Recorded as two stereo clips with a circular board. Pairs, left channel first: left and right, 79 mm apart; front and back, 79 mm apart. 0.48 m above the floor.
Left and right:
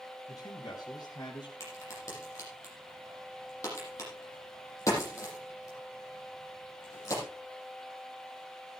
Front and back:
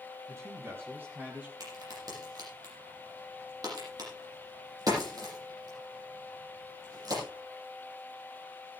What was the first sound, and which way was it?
A man speaking, 130° left.